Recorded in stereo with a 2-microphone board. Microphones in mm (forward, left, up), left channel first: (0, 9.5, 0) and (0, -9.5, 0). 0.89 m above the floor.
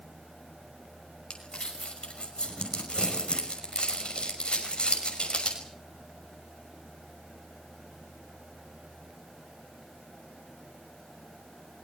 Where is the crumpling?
55° left (ahead or behind), 6 m.